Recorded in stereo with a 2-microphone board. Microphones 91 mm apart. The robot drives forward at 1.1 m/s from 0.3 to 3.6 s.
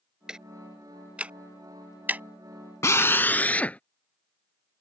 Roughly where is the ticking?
Centre.